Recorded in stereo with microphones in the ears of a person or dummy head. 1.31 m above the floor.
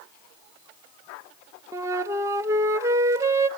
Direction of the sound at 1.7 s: 15° right (ahead or behind).